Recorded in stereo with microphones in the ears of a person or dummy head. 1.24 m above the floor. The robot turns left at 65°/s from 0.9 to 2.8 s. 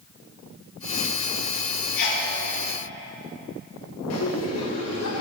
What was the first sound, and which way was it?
A sneeze, 60° left (ahead or behind).